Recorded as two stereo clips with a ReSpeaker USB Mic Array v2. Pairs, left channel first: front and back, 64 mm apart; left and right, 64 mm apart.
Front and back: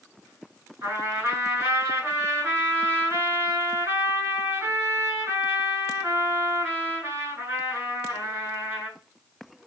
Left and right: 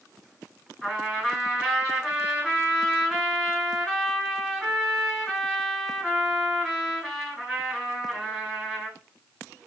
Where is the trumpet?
Straight behind, 1.9 m.